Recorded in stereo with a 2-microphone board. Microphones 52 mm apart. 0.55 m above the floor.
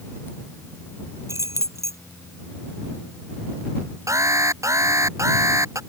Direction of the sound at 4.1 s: 80° right.